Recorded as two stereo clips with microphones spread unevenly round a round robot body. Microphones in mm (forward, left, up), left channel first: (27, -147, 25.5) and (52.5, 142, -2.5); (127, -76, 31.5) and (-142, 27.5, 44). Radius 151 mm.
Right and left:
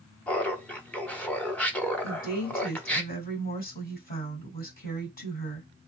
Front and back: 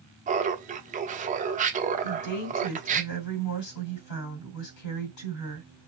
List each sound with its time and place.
0.3 s laughter: 175° left, 0.7 m
2.0 s a woman speaking: 35° right, 2.5 m